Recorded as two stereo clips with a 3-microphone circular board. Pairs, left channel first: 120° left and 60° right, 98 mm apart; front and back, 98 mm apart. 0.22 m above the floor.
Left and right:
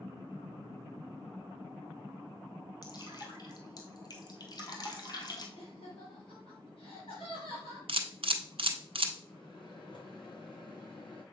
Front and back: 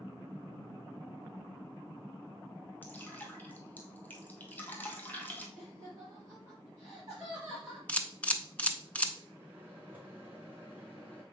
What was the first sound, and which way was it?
Dripping, 70° left.